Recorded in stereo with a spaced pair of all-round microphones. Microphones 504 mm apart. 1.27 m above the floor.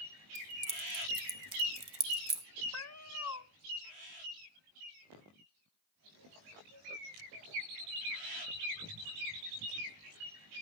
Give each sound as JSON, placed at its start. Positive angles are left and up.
{"t": 0.3, "sound": "keys jangling", "side_deg": -30, "distance_m": 1.9}
{"t": 2.7, "sound": "a cat meowing", "side_deg": 35, "distance_m": 0.5}